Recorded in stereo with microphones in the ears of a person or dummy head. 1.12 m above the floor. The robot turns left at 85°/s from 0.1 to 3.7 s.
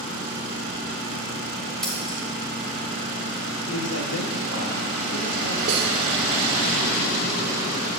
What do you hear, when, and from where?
1.8 s scissors: 5° left (ahead or behind), 1.7 m; by 2.2 s 35° left (ahead or behind), 1.7 m
3.7 s a man speaking: 70° left (ahead or behind), 2.0 m
5.7 s cutlery clinking: 60° right (ahead or behind), 1.6 m